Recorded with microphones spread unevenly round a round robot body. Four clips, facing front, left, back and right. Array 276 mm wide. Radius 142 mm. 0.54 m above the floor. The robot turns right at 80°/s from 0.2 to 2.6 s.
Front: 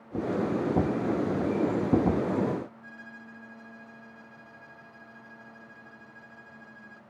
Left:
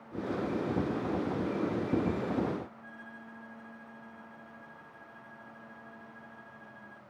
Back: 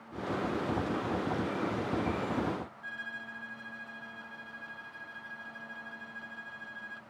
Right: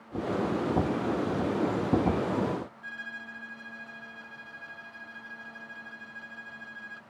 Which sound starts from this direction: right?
A violin, at 2.8 s.